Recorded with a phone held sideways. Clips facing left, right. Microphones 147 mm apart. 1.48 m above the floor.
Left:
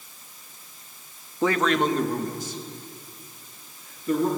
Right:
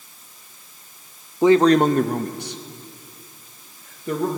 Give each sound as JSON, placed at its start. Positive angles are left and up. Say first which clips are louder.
{"t": 1.4, "sound": "a man speaking", "louder": "right 8 dB", "side_deg": -15, "distance_m": 0.6}